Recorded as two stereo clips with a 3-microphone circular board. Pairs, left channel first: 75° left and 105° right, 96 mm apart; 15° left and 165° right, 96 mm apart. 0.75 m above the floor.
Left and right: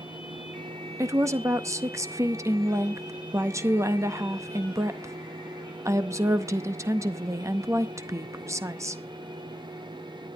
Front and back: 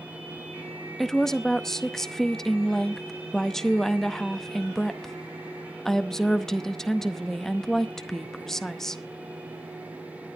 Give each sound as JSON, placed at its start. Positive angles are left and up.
{"t": 1.0, "sound": "a woman speaking", "azimuth_deg": -65, "distance_m": 0.7}